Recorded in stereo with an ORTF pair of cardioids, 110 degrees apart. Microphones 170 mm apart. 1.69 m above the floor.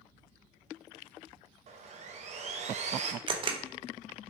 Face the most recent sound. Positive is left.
turn(degrees=-30)